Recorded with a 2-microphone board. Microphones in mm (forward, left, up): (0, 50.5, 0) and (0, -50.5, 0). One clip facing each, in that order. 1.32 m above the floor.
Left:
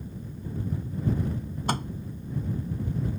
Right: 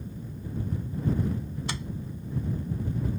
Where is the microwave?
50° left (ahead or behind).